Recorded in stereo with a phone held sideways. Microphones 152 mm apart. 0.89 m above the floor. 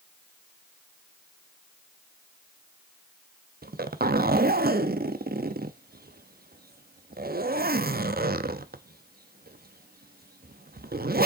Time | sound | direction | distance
3.6 | a zipper | 80° right | 0.6 m